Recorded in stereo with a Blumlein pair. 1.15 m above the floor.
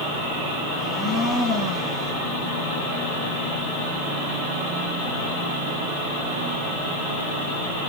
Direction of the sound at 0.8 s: 15° left.